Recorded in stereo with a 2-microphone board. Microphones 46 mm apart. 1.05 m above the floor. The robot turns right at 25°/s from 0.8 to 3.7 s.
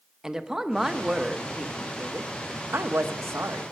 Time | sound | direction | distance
0.2 | a woman speaking | 165° right | 0.7 m